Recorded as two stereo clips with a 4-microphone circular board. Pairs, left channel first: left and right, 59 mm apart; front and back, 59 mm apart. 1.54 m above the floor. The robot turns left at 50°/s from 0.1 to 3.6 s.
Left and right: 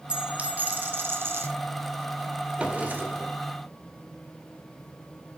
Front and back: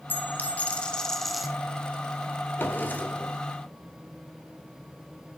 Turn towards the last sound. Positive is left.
turn(degrees=-80)